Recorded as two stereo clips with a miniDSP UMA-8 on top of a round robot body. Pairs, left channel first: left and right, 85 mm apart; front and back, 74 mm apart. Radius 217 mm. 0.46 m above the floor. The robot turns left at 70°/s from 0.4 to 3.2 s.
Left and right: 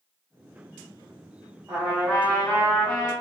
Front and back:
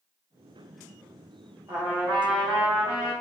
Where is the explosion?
No explosion in this recording.